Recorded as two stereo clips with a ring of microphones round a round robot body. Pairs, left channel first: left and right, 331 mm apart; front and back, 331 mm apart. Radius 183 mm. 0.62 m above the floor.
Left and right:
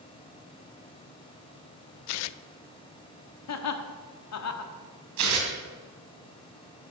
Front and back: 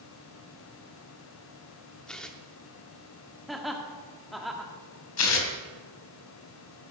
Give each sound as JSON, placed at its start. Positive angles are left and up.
{"t": 2.1, "sound": "tearing paper", "azimuth_deg": 90, "distance_m": 0.5}
{"t": 3.5, "sound": "laughter", "azimuth_deg": 90, "distance_m": 1.6}
{"t": 5.2, "sound": "tearing paper", "azimuth_deg": -45, "distance_m": 2.5}